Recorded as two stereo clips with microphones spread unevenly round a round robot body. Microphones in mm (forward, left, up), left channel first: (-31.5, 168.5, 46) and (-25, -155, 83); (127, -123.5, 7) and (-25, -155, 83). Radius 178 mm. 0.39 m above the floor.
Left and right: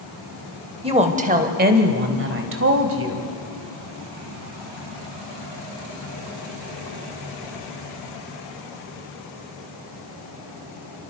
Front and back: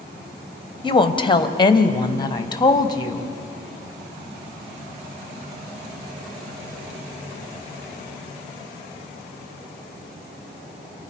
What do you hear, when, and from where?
0.8 s a woman speaking: 15° right, 2 m; by 3.3 s 40° right, 3 m